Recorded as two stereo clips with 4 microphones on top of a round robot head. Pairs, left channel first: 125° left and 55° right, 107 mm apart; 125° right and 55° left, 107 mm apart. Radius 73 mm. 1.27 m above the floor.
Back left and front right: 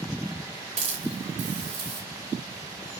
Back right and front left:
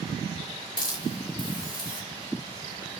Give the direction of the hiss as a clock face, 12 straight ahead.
3 o'clock.